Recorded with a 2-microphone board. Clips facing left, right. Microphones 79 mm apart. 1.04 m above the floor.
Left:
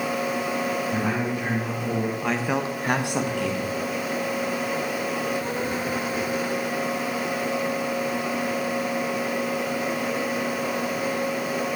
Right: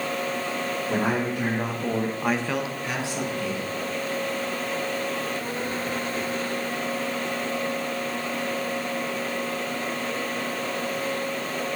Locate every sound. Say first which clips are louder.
0.9 s a man speaking: right 1 dB; 65° right (ahead or behind), 2 m; by 3.7 s 75° left (ahead or behind), 1.7 m